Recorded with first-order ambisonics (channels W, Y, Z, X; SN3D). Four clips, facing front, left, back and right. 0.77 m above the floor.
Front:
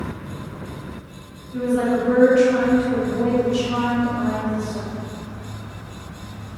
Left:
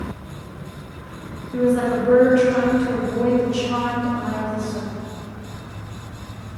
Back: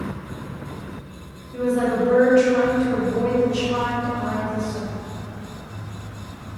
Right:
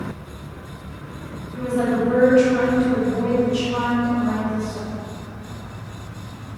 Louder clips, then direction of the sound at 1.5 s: Left 3 dB, front 1 dB; 85° left.